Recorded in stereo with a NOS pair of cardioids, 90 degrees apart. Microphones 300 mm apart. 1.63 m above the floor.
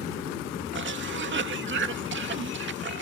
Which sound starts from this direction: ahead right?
A cough, at 0.7 s.